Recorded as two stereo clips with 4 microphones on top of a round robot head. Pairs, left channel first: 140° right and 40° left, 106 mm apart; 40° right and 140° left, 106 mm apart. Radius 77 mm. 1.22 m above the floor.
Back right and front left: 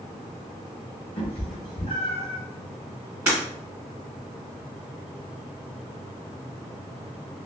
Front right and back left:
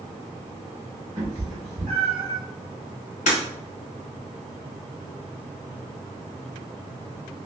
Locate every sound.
1.2 s a cat meowing: 165° right, 1.5 m; by 2.4 s 175° left, 0.9 m
3.3 s breaking glass: 25° right, 1.7 m